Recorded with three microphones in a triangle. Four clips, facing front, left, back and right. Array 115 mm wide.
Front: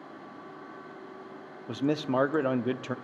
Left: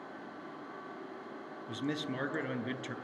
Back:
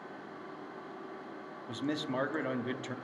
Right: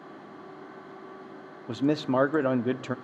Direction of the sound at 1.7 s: 65° right.